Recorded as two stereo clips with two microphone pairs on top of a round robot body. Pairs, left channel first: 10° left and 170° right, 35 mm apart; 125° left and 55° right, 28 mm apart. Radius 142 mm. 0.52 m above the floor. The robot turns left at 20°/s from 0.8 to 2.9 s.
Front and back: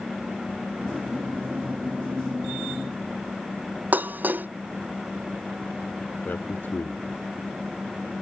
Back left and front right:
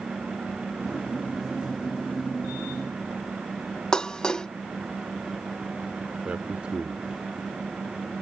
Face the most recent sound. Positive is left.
turn(degrees=-15)